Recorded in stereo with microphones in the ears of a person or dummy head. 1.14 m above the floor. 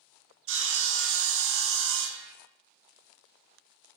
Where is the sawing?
55° right (ahead or behind), 0.6 m.